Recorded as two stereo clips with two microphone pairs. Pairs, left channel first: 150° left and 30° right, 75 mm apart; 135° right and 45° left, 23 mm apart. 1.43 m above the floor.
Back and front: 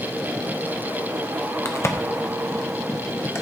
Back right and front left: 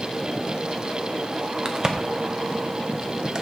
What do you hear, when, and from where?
1.6 s a crack: 100° left, 0.7 m